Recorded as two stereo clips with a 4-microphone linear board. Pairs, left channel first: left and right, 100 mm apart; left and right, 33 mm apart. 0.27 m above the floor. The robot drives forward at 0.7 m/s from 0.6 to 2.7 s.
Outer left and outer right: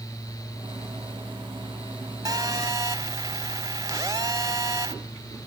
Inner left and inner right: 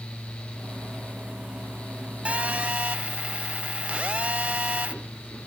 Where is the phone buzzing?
35° right (ahead or behind), 1.7 m.